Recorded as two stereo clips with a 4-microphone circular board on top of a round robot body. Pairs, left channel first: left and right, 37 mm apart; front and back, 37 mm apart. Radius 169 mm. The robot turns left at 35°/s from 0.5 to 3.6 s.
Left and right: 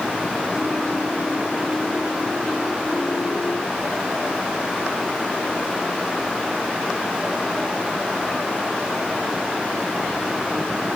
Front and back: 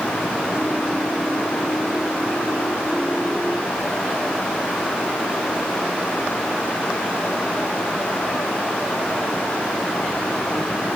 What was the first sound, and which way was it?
Only background noise.